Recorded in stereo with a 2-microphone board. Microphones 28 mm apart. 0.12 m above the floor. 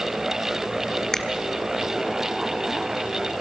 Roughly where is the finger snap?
Centre.